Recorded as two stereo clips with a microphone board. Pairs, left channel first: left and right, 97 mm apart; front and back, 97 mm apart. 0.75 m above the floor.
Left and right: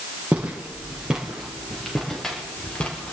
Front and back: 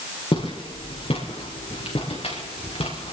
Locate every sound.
0.3 s footsteps: 15° right, 5 m; by 3.1 s 15° left, 5 m